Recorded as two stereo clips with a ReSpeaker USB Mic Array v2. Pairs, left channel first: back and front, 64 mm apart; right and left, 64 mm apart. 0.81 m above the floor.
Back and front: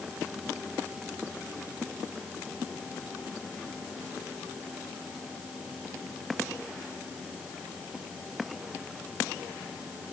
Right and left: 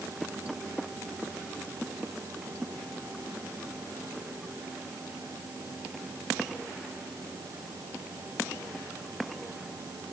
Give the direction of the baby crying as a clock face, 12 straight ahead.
No baby crying in this recording.